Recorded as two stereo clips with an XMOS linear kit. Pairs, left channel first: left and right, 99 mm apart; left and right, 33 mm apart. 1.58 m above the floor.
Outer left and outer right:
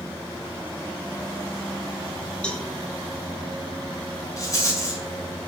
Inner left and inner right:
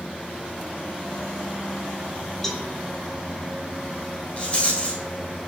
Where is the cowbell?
10° left (ahead or behind), 1.8 m.